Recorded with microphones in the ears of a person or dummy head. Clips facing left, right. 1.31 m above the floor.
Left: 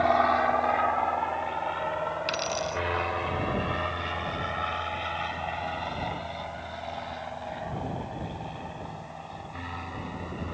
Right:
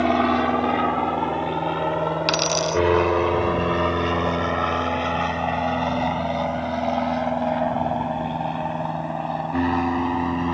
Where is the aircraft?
45° right (ahead or behind); by 10.5 s 70° right (ahead or behind).